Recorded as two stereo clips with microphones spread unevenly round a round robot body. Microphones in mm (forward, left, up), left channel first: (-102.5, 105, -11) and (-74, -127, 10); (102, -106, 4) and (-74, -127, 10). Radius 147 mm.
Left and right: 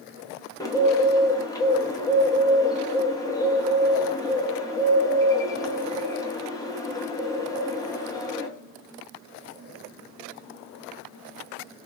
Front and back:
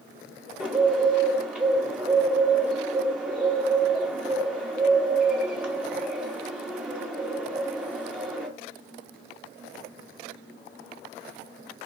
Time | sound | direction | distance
0.6 | a bird | 105° left | 0.7 m